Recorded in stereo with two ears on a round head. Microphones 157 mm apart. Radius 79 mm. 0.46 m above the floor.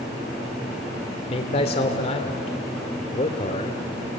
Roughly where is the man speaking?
Left.